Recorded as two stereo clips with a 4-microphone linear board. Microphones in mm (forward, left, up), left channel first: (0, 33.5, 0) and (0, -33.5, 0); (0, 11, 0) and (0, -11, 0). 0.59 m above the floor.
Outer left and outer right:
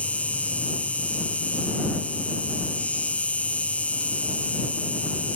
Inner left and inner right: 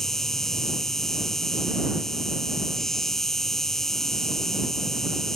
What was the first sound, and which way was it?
An insect, 20° left (ahead or behind).